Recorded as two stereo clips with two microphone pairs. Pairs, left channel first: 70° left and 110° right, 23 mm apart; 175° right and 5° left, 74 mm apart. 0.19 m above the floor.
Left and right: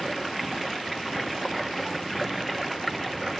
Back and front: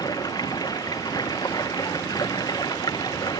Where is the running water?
155° left.